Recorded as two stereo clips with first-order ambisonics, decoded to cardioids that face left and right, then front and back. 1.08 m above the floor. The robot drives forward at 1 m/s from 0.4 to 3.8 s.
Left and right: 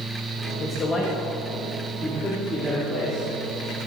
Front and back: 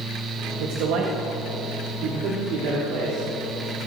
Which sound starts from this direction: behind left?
A man speaking, at 0.6 s.